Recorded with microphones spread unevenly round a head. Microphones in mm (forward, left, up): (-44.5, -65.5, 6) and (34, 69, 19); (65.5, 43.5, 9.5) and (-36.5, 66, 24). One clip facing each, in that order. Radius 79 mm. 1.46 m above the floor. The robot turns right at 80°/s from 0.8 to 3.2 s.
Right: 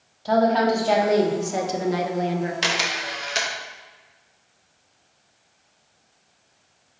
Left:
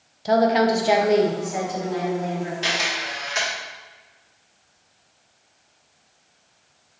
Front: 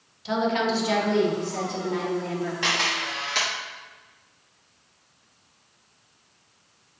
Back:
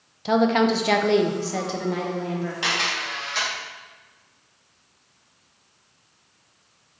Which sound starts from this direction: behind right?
A camera shutter, at 2.6 s.